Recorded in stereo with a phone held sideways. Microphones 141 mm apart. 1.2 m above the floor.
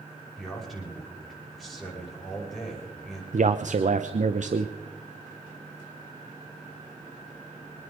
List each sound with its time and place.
0.4 s a man speaking: centre (ahead or behind), 5.5 m
3.3 s a man speaking: 60° right (ahead or behind), 0.7 m